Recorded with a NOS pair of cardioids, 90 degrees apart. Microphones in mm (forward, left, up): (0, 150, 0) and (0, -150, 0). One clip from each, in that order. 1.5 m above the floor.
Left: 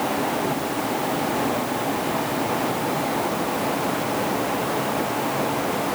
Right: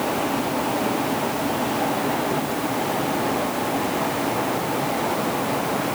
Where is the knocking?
I don't hear knocking.